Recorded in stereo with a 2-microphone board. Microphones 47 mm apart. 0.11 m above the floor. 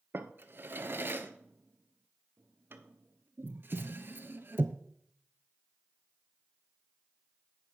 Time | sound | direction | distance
0.1 | a drawer | 45° right (ahead or behind) | 0.5 m